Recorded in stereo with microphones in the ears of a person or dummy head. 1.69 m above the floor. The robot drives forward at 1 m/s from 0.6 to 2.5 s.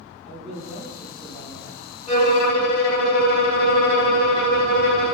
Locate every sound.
0.2 s a man speaking: 5° left (ahead or behind), 1.4 m
2.1 s a violin: 40° left (ahead or behind), 1.5 m; by 5.2 s 55° left (ahead or behind), 1.2 m